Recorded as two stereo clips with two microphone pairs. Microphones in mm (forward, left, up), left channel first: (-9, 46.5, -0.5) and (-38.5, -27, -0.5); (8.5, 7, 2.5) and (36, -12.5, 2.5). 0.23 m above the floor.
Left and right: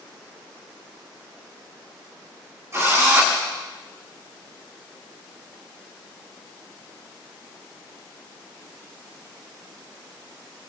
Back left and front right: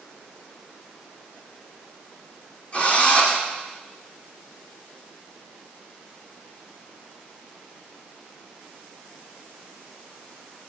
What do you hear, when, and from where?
2.7 s a drill: 165° right, 8.5 m